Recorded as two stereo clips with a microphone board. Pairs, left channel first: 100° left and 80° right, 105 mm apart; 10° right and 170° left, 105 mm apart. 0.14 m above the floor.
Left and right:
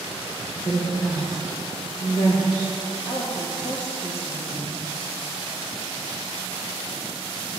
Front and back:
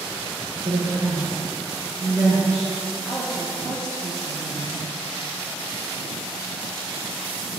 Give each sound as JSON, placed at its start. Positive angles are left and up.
{"t": 0.7, "sound": "a woman speaking", "azimuth_deg": 135, "distance_m": 3.0}
{"t": 3.0, "sound": "a woman speaking", "azimuth_deg": 110, "distance_m": 2.5}